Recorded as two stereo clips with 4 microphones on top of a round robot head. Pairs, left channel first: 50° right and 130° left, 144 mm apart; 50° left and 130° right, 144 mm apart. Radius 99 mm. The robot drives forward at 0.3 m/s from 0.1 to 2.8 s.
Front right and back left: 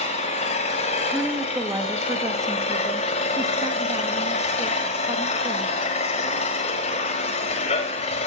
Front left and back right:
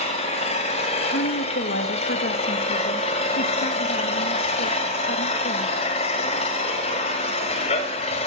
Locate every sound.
0.0 s an engine running: straight ahead, 2.5 m
1.1 s a woman speaking: 50° left, 1.6 m; by 5.8 s 65° left, 1.3 m